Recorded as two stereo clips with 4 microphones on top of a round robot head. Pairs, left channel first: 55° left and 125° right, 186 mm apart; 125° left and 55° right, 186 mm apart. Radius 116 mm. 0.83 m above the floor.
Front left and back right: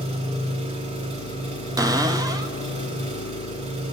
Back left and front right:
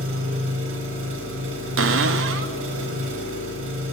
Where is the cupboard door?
50° right, 1.5 m.